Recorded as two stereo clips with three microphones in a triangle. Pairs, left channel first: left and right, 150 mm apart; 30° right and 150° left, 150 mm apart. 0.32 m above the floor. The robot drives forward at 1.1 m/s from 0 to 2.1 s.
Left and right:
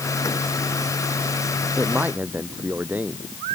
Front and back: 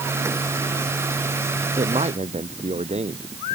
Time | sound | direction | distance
1.8 | a man speaking | 165° right | ?